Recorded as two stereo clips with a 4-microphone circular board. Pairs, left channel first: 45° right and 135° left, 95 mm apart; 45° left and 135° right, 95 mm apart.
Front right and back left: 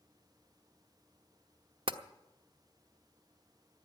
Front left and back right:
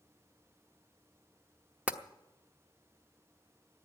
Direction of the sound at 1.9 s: 150° left.